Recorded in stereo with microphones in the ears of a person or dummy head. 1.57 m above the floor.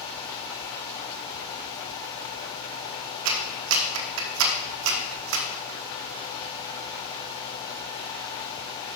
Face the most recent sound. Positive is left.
turn(degrees=-80)